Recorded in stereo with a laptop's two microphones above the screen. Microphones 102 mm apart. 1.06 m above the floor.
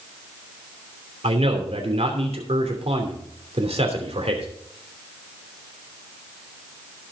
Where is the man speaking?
80° right, 3 m.